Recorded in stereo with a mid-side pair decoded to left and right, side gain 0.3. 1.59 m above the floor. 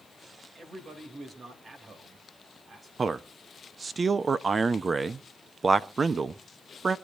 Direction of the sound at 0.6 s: 65° right.